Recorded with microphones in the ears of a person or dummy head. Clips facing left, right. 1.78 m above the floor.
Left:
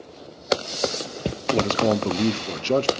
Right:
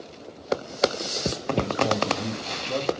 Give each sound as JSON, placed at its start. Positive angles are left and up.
{"t": 1.5, "sound": "a man speaking", "side_deg": 60, "distance_m": 0.7}